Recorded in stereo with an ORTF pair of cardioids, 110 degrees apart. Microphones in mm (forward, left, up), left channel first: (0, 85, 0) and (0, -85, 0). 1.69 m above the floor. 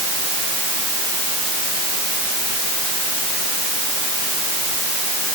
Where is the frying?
No frying in this recording.